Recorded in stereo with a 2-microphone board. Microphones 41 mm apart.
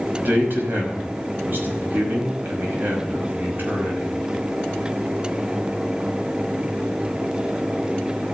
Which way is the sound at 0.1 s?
55° right (ahead or behind).